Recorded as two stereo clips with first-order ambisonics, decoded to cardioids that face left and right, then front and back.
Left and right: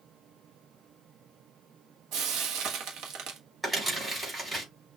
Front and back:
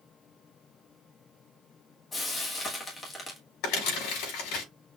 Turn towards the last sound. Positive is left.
turn(degrees=-5)